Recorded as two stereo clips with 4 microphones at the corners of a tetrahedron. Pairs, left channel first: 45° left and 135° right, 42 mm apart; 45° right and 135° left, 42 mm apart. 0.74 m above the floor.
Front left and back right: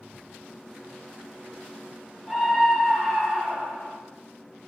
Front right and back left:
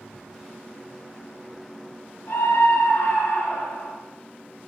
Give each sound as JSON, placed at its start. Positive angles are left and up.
{"t": 2.3, "sound": "a scream", "azimuth_deg": -30, "distance_m": 6.5}